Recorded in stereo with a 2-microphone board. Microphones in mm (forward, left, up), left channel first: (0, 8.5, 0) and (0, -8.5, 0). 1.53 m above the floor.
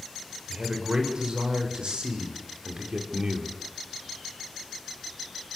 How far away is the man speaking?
About 7.5 m.